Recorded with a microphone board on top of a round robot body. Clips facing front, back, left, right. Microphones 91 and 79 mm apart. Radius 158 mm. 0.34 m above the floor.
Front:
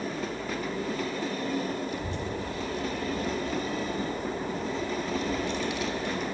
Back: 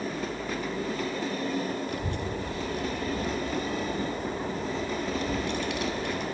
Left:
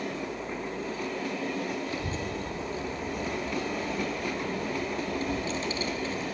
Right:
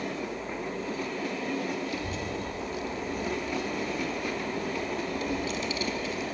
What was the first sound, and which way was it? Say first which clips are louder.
A child speaking: back 1 dB, even; 145° left.